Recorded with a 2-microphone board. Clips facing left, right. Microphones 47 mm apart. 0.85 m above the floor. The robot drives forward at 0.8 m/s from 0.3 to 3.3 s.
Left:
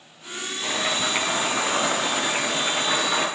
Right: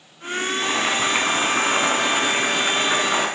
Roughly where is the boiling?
Right.